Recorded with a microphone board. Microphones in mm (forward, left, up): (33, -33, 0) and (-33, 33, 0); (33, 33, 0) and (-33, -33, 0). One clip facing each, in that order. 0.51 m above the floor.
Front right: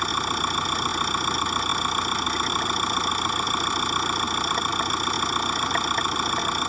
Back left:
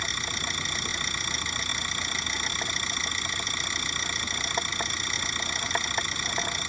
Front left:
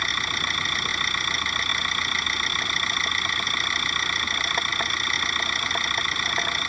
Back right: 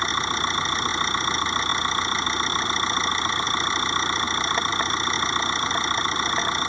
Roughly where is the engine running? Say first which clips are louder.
Front right 9 dB, back right 4 dB; right.